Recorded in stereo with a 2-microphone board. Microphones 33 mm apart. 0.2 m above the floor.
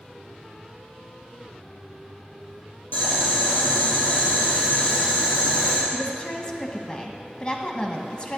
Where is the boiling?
65° left (ahead or behind), 4 m.